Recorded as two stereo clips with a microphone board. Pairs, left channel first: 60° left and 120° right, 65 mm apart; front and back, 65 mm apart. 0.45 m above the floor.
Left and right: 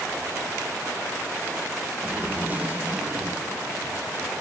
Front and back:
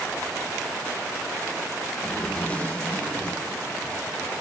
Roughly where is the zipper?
Ahead right.